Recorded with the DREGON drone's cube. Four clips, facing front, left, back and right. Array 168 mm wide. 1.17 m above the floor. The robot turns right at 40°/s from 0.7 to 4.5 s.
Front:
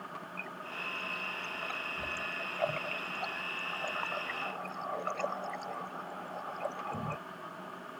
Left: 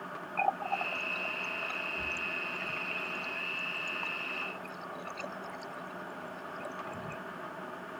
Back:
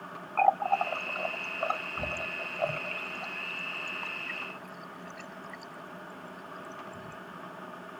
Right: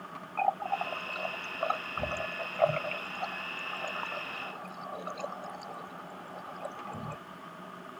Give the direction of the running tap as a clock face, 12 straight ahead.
6 o'clock.